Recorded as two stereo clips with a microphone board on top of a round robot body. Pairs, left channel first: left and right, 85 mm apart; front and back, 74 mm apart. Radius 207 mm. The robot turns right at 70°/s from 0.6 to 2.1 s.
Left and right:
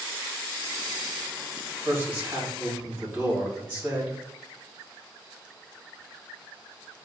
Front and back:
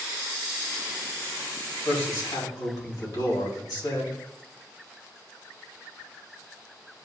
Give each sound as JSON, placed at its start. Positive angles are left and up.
{"t": 1.9, "sound": "a man speaking", "azimuth_deg": -35, "distance_m": 2.5}